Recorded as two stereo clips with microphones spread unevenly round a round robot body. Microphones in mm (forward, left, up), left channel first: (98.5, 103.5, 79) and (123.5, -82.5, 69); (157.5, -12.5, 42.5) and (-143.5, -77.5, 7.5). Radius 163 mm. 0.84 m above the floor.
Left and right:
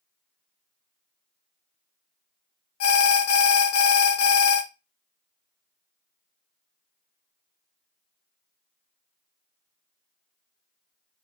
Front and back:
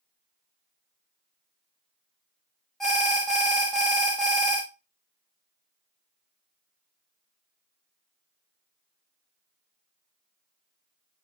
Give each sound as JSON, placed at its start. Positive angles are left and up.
{"t": 2.8, "sound": "an alarm", "azimuth_deg": 100, "distance_m": 0.5}